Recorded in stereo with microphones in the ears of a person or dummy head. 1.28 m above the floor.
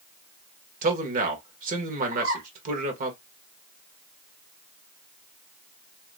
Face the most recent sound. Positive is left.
turn(degrees=-40)  # may be behind; listen again after turning